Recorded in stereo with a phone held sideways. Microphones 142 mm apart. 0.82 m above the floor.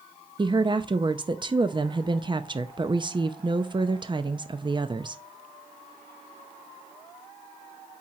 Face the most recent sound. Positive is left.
turn(degrees=-35)  # may be behind; listen again after turning